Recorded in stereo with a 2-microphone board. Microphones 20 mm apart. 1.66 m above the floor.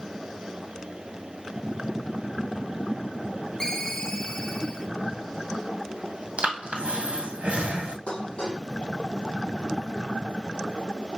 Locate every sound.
3.6 s a ringtone: 30° left (ahead or behind), 1.5 m
6.4 s breathing: 85° right, 1.7 m
8.1 s dishes clattering: 60° left (ahead or behind), 2.5 m